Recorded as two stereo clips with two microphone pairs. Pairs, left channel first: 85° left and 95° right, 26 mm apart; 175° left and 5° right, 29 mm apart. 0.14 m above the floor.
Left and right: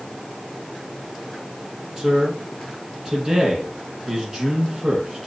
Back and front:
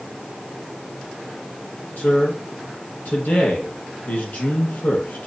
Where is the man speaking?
170° right, 5 m.